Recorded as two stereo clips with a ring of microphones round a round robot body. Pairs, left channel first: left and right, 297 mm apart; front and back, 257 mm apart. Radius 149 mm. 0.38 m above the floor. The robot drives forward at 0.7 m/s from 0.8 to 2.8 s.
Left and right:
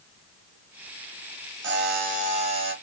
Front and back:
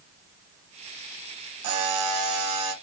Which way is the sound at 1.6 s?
145° right.